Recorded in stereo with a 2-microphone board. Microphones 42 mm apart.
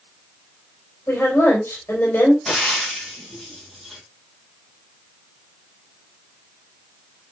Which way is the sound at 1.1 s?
65° left (ahead or behind).